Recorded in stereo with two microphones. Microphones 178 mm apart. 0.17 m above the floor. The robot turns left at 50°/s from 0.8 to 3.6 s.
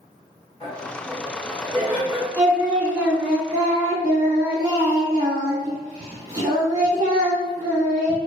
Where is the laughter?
55° left, 1.9 m; by 2.3 s 15° right, 1.9 m.